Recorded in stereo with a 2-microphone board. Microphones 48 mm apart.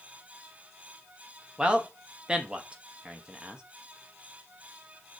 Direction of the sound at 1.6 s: 20° right (ahead or behind).